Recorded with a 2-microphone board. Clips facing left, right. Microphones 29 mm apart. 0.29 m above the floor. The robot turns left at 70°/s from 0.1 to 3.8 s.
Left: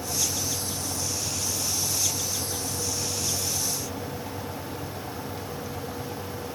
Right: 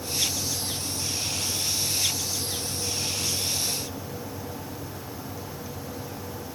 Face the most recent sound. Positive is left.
No sound to turn to.